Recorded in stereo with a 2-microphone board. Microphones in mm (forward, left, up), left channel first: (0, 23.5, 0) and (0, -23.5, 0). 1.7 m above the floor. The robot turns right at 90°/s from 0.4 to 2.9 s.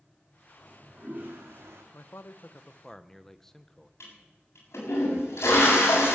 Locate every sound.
0.6 s a toilet flushing: 175° left, 3.5 m; by 1.8 s 75° right, 3.5 m
1.9 s a man speaking: 80° left, 1.0 m; by 3.9 s 170° left, 1.0 m
4.0 s a toilet flushing: 75° left (ahead or behind), 7.5 m